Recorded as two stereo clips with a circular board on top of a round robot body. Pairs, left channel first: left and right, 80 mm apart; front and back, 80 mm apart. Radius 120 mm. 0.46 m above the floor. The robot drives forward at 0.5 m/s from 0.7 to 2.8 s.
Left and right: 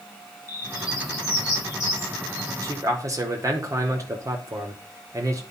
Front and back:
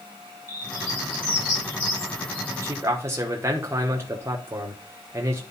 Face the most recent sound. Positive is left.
turn(degrees=-130)